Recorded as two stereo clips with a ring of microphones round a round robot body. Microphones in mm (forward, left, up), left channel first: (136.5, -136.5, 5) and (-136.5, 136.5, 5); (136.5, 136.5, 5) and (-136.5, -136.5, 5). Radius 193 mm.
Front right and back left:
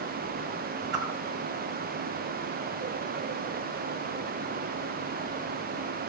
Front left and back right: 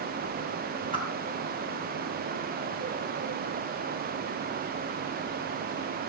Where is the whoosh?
120° left, 3 m.